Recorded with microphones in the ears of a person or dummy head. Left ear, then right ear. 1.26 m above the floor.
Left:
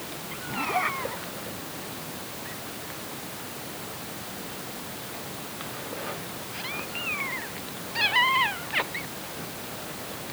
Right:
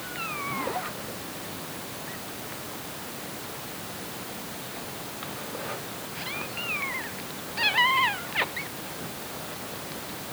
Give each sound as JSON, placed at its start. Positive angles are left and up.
{"t": 0.5, "sound": "a zipper", "side_deg": 75}